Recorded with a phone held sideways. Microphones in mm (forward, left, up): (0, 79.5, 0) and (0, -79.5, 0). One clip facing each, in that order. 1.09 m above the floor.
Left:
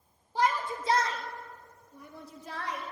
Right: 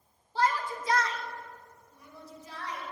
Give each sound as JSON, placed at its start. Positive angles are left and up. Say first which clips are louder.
{"t": 0.3, "sound": "a shout", "louder": "even", "side_deg": 15, "distance_m": 1.5}